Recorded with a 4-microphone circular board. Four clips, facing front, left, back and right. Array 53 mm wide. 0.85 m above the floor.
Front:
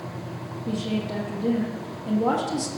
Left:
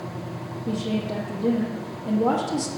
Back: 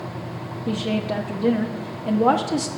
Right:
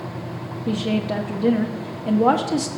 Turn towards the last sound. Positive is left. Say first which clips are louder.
# right 4 dB, back 4 dB
turn(degrees=-130)